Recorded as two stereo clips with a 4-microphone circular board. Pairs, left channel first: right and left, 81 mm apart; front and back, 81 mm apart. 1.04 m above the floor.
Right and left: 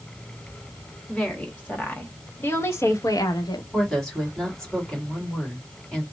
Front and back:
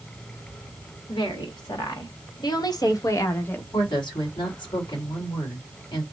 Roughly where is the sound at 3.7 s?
Ahead.